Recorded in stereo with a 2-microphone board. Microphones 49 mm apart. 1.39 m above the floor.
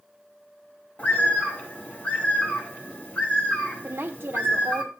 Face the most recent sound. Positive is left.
turn(degrees=-45)  # may be behind; listen again after turning